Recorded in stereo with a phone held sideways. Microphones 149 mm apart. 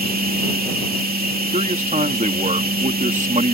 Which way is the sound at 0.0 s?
85° right.